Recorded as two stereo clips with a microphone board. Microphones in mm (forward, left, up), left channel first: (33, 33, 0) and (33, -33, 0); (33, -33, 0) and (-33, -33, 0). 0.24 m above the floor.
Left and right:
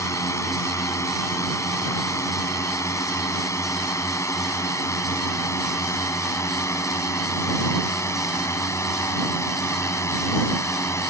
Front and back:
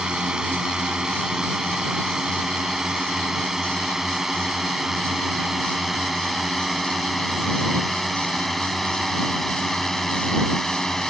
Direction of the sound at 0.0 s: 105° left.